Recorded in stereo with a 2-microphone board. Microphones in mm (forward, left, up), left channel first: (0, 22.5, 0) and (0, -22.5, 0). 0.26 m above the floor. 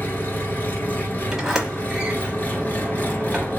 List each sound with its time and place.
0.0 s an engine running: 50° left (ahead or behind), 1.0 m
1.3 s a sliding door: 10° right (ahead or behind), 1.0 m